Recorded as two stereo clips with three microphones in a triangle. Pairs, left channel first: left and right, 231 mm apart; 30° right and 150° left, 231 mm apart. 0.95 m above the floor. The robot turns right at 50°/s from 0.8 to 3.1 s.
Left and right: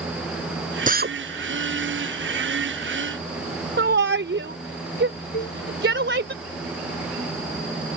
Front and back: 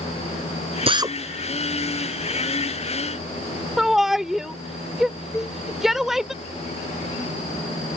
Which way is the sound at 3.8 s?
120° right.